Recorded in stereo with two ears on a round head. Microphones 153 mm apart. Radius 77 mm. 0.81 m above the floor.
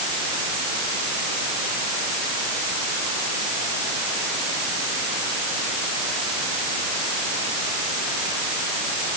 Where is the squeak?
No squeak in this recording.